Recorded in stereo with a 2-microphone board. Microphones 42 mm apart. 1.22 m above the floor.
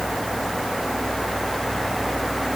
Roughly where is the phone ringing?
I don't hear a phone ringing.